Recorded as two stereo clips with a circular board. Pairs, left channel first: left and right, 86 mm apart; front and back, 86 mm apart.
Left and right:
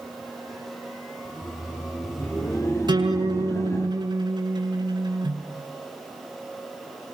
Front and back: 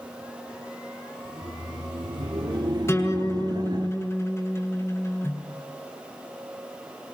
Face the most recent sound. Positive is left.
turn(degrees=-55)